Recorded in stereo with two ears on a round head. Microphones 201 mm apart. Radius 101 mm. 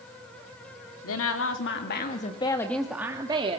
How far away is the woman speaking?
About 2.5 m.